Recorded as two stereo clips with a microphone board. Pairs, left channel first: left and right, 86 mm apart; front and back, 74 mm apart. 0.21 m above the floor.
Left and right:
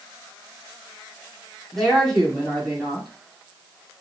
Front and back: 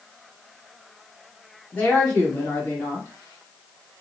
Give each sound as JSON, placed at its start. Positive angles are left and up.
{"t": 1.7, "sound": "a woman speaking", "azimuth_deg": 10, "distance_m": 1.4}